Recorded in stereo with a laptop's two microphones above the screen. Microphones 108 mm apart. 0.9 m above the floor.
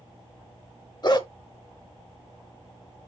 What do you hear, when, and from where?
1.0 s a dog barking: 40° left (ahead or behind), 1.0 m